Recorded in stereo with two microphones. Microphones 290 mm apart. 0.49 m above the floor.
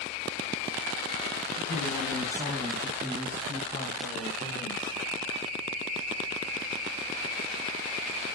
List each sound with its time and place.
1.6 s a woman speaking: 10° left (ahead or behind), 4.5 m; by 5.0 s 35° left (ahead or behind), 2 m